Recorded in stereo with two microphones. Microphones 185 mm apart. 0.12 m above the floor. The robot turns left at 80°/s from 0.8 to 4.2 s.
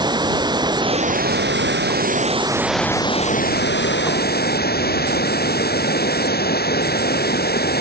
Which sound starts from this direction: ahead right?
Running water, at 0.0 s.